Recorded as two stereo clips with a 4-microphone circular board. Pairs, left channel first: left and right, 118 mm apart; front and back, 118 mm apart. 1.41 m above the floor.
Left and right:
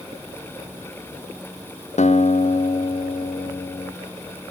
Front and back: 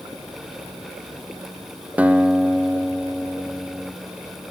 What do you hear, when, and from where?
2.0 s a guitar: 105° left, 0.6 m